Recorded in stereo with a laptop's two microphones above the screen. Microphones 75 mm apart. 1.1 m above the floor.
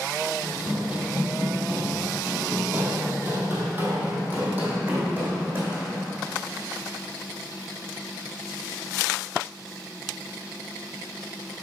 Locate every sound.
0.4 s running footsteps: 15° right (ahead or behind), 1.3 m; by 6.0 s 20° right (ahead or behind), 2.5 m